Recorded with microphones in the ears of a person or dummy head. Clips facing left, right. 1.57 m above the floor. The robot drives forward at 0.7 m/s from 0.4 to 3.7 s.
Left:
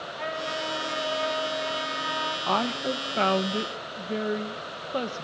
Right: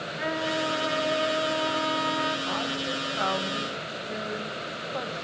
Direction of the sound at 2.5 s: 65° left (ahead or behind).